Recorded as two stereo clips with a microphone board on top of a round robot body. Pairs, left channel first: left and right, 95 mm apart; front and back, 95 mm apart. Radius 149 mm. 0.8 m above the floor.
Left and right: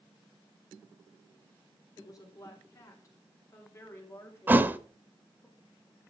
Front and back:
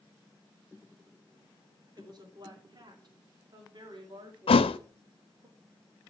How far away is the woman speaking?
About 3.5 m.